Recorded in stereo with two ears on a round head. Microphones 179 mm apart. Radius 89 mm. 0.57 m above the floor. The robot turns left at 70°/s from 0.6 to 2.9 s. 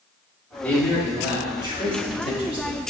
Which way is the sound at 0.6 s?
10° left (ahead or behind).